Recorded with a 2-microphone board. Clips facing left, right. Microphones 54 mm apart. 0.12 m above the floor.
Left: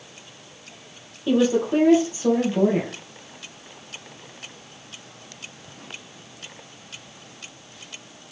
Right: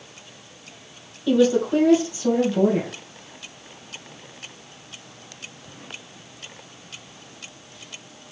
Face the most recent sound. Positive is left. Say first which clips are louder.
# right 2 dB
turn(degrees=30)  # may be behind; listen again after turning